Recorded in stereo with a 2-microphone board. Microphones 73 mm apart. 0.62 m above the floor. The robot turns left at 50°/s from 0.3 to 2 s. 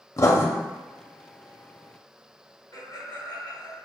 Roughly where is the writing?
Left.